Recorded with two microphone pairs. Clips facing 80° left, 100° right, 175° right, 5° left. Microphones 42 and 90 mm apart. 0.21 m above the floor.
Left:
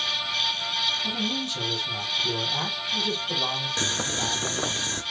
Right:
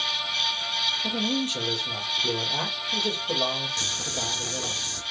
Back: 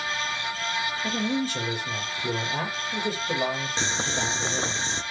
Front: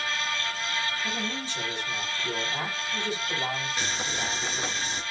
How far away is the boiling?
About 1.1 m.